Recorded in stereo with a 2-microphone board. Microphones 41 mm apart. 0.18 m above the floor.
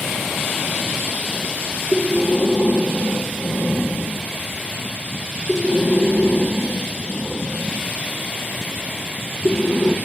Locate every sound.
1.9 s breathing: 40° left (ahead or behind), 0.9 m